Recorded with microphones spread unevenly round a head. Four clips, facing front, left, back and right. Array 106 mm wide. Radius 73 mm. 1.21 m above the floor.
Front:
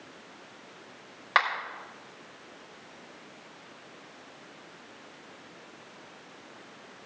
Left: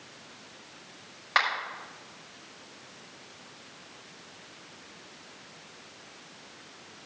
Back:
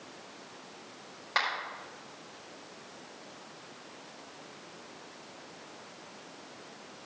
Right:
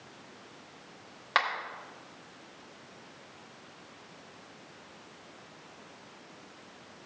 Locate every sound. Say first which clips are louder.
1.4 s a finger snap: left 2 dB, front 6 dB; 10° right, 5.5 m